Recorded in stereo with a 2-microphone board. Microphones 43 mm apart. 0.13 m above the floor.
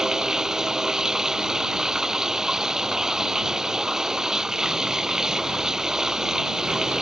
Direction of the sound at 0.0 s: 15° right (ahead or behind).